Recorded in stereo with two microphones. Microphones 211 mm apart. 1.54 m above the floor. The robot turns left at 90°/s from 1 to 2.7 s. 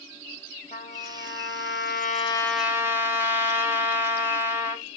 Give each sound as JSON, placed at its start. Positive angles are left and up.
{"t": 0.7, "sound": "a trumpet", "azimuth_deg": 140, "distance_m": 1.1}